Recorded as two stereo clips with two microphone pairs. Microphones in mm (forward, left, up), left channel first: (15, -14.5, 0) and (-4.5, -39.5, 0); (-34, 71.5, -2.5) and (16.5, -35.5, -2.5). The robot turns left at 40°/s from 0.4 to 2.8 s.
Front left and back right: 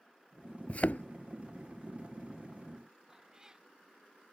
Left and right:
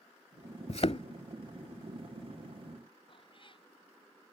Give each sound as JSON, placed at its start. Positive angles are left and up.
{"t": 0.7, "sound": "a thud", "azimuth_deg": 95}
{"t": 3.1, "sound": "a cat meowing", "azimuth_deg": 160}